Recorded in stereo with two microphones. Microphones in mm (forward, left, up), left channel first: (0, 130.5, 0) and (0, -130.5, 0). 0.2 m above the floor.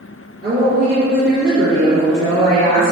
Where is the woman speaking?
40° right (ahead or behind), 2 m; by 2.9 s 70° right (ahead or behind), 3 m.